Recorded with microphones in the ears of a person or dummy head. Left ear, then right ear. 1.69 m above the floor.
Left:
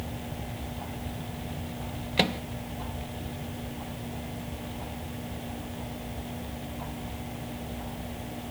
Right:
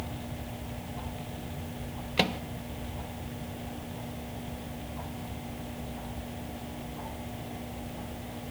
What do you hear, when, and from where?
2.2 s a microwave: 5° right (ahead or behind)